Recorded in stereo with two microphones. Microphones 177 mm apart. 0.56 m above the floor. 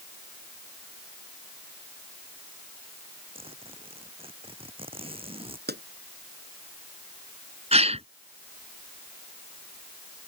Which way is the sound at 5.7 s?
65° right (ahead or behind).